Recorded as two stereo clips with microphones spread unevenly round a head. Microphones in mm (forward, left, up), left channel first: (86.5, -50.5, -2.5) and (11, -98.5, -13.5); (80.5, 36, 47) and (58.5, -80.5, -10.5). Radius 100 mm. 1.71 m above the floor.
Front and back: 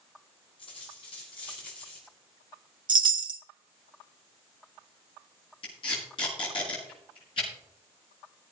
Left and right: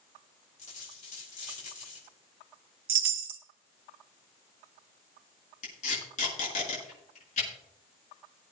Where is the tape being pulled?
75° left, 6 m.